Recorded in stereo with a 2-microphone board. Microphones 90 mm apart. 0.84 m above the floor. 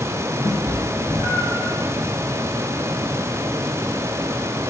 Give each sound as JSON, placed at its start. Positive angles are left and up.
{"t": 0.4, "sound": "a cat meowing", "side_deg": 70, "distance_m": 2.0}